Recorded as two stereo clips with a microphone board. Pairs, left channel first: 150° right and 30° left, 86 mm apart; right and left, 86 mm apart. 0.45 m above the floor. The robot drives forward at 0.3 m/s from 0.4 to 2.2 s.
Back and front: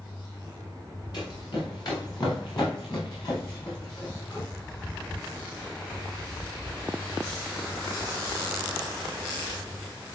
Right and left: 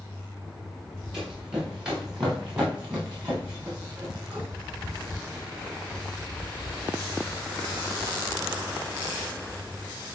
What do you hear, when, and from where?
1.1 s running footsteps: 175° left, 4 m; by 4.5 s 165° left, 6 m